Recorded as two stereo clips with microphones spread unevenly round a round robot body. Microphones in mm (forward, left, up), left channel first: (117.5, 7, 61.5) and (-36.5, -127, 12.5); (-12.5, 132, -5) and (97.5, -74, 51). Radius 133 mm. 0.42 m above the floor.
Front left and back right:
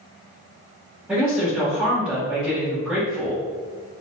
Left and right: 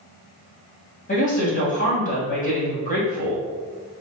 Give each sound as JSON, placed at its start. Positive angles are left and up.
{"t": 1.1, "sound": "a woman speaking", "azimuth_deg": 150, "distance_m": 1.9}